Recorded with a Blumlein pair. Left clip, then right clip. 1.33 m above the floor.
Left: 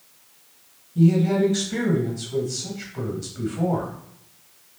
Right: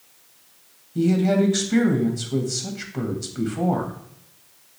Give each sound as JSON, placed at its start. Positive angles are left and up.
{"t": 0.9, "sound": "a woman speaking", "azimuth_deg": -25, "distance_m": 1.1}